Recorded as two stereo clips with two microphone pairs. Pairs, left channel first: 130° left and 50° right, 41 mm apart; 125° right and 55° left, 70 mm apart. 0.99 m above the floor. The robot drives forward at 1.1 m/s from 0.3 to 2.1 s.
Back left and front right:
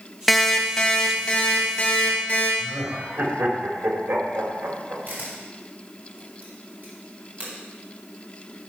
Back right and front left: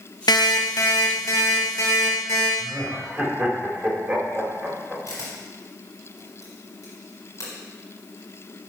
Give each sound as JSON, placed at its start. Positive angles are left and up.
{"t": 0.3, "sound": "an alarm clock", "azimuth_deg": -145, "distance_m": 0.7}
{"t": 2.6, "sound": "laughter", "azimuth_deg": -30, "distance_m": 3.0}
{"t": 5.1, "sound": "a camera shutter", "azimuth_deg": -90, "distance_m": 4.0}